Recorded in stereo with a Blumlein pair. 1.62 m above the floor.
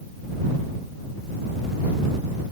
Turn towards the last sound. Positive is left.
No sound to turn to.